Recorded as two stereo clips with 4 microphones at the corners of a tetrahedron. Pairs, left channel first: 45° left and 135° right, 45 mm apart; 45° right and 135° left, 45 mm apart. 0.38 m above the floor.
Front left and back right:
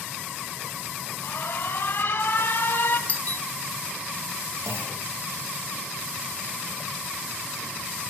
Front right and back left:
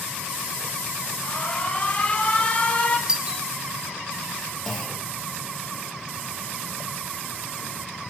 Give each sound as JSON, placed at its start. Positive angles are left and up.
{"t": 1.2, "sound": "an alarm", "azimuth_deg": 10, "distance_m": 3.0}
{"t": 3.1, "sound": "a doorbell", "azimuth_deg": 70, "distance_m": 1.7}
{"t": 4.7, "sound": "a clunk", "azimuth_deg": -130, "distance_m": 5.0}